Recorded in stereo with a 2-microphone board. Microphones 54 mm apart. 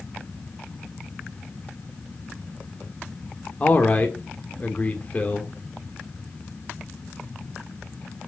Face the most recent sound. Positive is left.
turn(degrees=30)  # may be behind; listen again after turning